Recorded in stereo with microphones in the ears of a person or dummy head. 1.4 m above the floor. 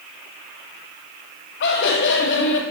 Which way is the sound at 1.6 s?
65° left (ahead or behind).